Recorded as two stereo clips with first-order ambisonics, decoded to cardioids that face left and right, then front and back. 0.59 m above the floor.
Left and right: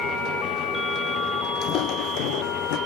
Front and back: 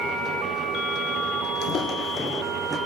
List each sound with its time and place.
1.6 s footsteps: 40° left, 1.1 m; by 2.8 s 95° left, 1.6 m